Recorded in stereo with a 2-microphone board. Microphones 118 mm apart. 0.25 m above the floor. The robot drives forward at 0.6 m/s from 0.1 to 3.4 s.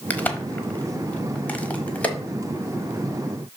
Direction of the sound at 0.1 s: 15° left (ahead or behind).